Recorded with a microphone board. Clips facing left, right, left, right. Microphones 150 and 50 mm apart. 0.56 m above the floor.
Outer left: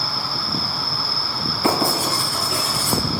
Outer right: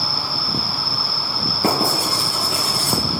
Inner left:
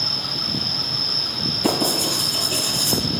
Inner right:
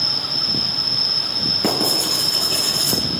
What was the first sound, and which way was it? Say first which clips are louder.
An insect: outer right 1 dB, inner right 1 dB; 75° right (ahead or behind).